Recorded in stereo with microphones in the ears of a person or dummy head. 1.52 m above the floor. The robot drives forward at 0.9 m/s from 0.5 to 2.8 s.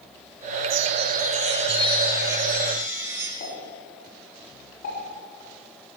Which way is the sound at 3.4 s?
55° left (ahead or behind).